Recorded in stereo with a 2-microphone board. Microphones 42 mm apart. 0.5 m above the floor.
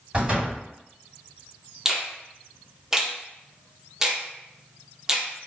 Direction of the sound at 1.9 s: 10° right (ahead or behind).